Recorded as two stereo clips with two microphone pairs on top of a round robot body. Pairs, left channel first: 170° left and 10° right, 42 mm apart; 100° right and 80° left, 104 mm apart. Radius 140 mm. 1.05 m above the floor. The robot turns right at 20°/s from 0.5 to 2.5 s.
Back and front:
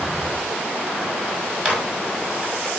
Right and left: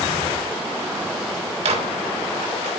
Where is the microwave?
55° left, 6 m; by 2.7 s 75° left, 6 m.